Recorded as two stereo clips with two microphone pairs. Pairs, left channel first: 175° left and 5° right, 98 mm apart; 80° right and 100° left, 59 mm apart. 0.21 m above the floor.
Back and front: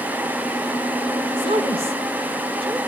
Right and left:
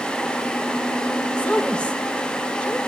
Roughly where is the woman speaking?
Ahead.